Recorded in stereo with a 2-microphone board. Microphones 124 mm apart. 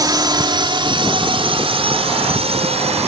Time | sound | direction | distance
0.0 | a drone | 30° right (ahead or behind) | ?